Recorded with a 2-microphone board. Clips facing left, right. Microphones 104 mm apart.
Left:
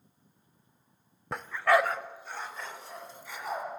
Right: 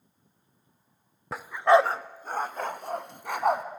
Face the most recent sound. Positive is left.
turn(degrees=-65)  # may be behind; listen again after turning